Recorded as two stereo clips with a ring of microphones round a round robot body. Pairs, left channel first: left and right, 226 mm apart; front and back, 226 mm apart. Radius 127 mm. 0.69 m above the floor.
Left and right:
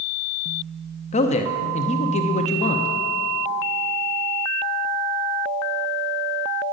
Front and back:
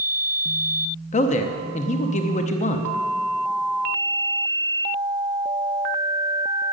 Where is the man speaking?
45° left, 0.7 m.